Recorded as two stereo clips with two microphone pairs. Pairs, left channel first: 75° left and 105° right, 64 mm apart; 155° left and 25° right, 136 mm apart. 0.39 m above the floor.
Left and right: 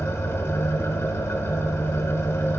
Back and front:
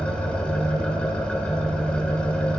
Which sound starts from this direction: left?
An engine running, at 0.0 s.